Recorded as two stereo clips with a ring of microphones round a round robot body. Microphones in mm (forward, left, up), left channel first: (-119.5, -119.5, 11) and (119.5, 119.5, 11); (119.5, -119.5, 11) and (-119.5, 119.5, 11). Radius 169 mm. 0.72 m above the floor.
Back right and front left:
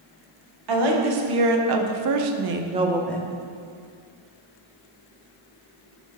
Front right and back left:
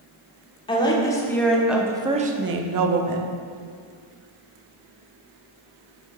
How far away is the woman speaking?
About 1.5 m.